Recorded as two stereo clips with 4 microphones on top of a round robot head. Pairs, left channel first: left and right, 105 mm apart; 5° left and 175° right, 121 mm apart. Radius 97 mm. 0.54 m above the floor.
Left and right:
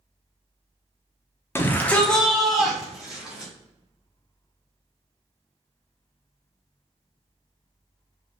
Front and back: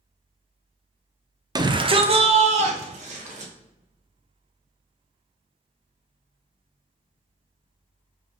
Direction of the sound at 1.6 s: 145° left.